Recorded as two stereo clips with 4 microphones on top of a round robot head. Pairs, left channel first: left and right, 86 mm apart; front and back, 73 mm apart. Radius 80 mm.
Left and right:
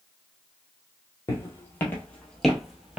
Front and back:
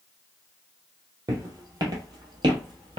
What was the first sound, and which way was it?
Footsteps, 145° left.